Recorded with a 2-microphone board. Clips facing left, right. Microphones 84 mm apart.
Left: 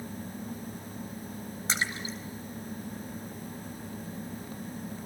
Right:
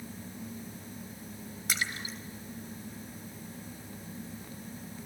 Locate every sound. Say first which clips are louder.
1.7 s a splash: left 3 dB; 30° left (ahead or behind), 3.5 m